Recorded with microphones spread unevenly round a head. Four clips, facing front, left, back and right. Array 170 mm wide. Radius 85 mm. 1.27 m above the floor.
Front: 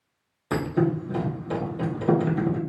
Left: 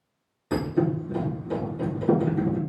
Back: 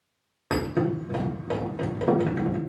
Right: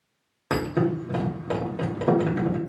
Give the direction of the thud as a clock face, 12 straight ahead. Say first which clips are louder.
Even, front 2 dB; 4 o'clock.